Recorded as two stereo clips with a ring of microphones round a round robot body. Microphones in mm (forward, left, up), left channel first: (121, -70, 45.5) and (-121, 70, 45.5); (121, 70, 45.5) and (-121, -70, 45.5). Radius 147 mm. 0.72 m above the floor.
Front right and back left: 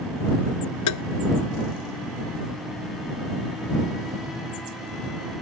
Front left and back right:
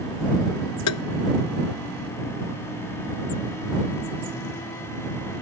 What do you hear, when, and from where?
0.9 s tapping: straight ahead